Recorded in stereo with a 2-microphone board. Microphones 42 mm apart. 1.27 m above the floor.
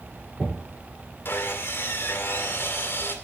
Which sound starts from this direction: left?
Sawing, at 1.2 s.